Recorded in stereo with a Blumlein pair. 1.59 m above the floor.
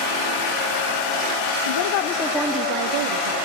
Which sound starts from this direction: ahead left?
A woman speaking, at 1.6 s.